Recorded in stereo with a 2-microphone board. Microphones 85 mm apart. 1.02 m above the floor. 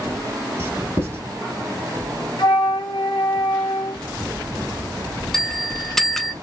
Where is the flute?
65° left (ahead or behind), 1.3 m.